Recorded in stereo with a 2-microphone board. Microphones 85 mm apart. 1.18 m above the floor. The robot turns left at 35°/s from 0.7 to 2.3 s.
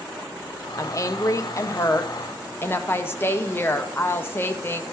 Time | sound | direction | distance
0.8 | a woman speaking | 100° left | 0.7 m